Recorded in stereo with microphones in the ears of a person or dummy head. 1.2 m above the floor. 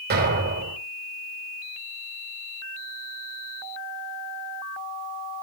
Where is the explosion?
50° right (ahead or behind), 5.5 m.